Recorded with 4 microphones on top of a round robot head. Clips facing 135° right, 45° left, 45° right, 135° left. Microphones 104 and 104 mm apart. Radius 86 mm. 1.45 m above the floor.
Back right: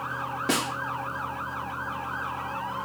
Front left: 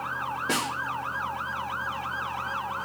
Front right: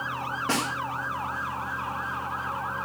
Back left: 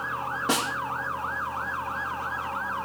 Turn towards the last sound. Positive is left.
turn(degrees=-150)